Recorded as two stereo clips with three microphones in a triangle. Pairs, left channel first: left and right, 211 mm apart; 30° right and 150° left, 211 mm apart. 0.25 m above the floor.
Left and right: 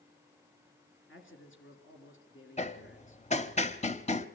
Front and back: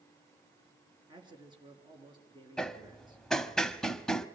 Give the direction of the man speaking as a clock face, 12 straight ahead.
9 o'clock.